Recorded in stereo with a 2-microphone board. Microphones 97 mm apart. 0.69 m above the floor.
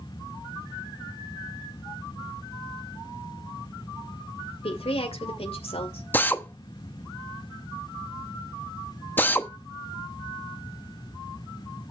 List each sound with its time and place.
4.6 s a woman speaking: 75° left (ahead or behind), 2.5 m
6.1 s a drill: 20° left (ahead or behind), 1.0 m